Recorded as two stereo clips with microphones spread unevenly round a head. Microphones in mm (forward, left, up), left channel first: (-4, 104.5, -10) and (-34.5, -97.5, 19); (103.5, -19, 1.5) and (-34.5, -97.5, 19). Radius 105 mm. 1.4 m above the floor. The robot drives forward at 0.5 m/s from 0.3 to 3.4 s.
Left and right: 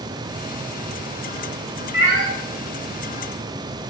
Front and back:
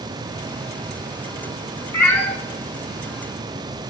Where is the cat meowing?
40° right, 1.1 m; by 2.3 s 50° right, 1.1 m.